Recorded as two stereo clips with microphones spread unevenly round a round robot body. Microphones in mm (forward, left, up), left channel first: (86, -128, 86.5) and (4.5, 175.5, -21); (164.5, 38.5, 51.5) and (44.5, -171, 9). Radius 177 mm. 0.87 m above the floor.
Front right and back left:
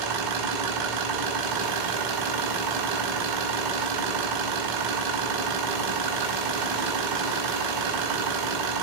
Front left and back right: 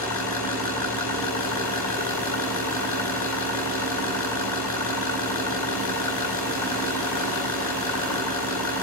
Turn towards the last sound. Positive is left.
turn(degrees=100)